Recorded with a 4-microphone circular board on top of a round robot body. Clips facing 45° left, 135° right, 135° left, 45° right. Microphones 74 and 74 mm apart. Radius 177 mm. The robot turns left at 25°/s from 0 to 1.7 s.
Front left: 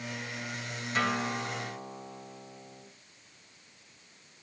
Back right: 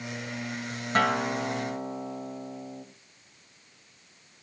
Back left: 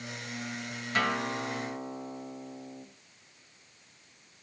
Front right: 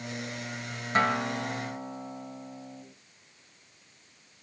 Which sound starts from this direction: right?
A guitar, at 0.9 s.